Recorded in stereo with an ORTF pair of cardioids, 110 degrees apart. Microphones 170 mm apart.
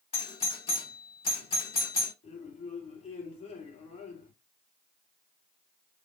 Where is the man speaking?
45° left, 3 m.